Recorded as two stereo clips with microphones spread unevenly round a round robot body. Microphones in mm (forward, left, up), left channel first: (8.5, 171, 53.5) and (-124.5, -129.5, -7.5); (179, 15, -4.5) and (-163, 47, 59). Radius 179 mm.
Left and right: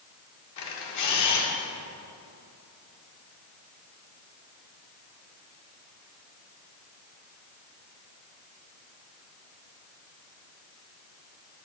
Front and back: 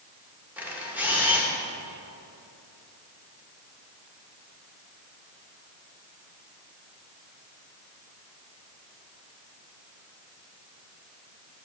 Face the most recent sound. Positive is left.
turn(degrees=80)